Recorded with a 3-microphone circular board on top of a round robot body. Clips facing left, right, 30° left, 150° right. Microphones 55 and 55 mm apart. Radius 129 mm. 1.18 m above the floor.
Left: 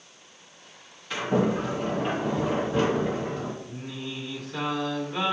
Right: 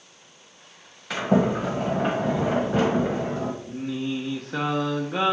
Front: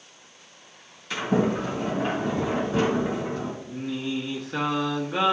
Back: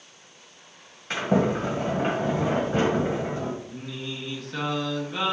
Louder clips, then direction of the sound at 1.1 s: Right 3 dB, back 1 dB; 105° right.